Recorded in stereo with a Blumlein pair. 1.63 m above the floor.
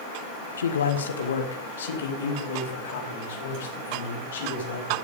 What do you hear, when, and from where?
0.6 s a man speaking: 70° left, 1.4 m; by 4.9 s 60° left, 6 m